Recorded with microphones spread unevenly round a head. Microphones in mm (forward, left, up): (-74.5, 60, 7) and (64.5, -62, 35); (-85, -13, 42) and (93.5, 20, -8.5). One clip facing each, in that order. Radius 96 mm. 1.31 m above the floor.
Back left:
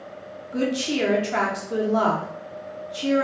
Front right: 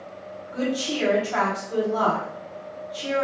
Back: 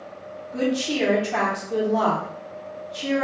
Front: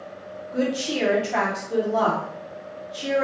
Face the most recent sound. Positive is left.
turn(degrees=90)